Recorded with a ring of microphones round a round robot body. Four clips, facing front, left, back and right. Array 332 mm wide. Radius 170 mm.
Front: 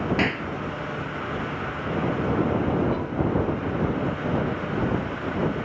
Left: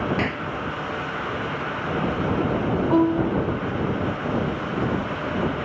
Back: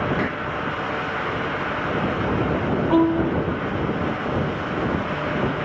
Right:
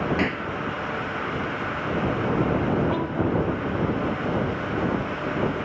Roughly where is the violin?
Behind left.